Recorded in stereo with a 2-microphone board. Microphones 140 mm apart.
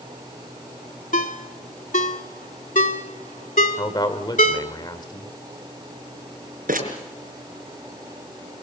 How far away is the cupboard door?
No cupboard door in this recording.